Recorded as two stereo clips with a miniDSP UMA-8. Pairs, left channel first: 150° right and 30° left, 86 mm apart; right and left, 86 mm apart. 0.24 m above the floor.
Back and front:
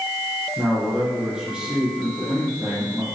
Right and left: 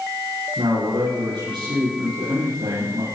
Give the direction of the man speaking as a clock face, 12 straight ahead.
8 o'clock.